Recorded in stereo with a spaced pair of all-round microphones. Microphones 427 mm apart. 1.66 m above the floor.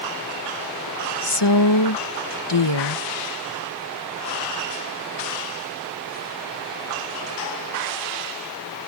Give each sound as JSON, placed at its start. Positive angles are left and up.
{"t": 1.2, "sound": "a woman speaking", "side_deg": 70}